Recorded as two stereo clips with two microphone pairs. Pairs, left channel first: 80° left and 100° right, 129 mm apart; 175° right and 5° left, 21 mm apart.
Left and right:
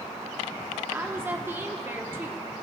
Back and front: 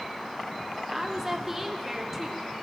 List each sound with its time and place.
0.9 s a woman speaking: 50° right, 0.7 m